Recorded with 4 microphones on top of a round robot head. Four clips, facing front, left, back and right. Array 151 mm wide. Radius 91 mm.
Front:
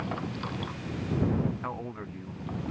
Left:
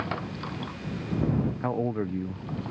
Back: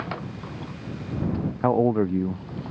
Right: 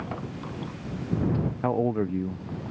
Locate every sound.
1.6 s a man speaking: 165° right